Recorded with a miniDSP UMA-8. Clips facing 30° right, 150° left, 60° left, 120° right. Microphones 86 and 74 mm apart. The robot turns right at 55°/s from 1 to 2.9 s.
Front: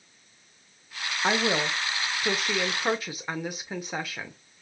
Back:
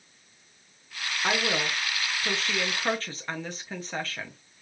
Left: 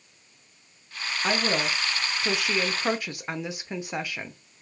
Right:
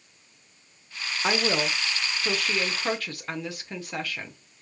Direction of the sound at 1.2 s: 65° right.